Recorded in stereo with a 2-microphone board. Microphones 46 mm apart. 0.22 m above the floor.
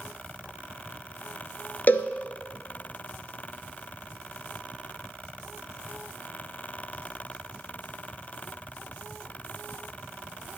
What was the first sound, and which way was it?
A cowbell, 40° left (ahead or behind).